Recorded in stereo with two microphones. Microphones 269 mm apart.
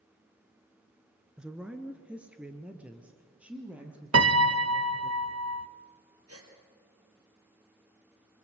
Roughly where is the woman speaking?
Centre.